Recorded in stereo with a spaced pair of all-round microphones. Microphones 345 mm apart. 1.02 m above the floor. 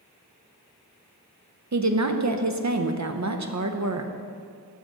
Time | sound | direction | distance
1.7 | a woman speaking | 55° right (ahead or behind) | 0.5 m